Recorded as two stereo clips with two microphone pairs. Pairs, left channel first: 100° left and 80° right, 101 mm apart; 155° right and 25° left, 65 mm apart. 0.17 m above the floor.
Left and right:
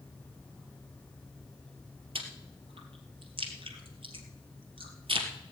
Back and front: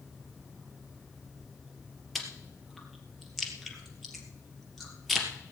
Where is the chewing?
65° right, 2.5 m.